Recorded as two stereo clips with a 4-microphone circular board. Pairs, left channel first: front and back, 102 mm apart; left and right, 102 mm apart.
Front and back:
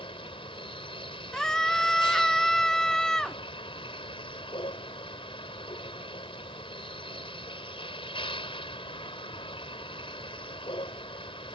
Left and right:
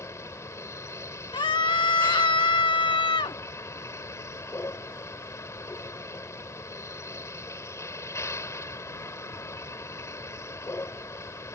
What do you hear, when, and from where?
0.0 s a vehicle: 30° left
1.3 s a scream: 85° left